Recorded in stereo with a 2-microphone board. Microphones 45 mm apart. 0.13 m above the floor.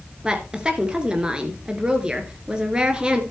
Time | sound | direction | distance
0.2 | a woman speaking | 20° right (ahead or behind) | 2 m